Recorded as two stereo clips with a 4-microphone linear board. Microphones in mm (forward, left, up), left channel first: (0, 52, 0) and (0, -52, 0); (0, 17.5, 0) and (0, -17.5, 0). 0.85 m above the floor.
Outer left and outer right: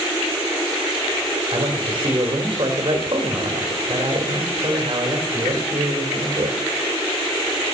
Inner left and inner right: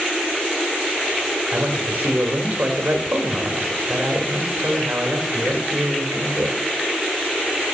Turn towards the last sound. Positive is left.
turn(degrees=-45)  # may be behind; listen again after turning